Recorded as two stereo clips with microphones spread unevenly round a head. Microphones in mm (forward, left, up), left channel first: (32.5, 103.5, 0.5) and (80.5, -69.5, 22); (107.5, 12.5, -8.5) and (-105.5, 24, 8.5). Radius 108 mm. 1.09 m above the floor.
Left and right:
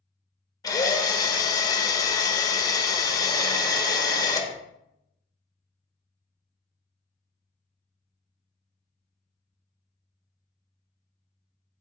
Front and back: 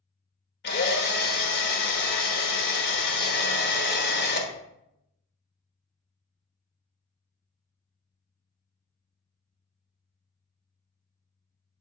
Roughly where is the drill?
Ahead left.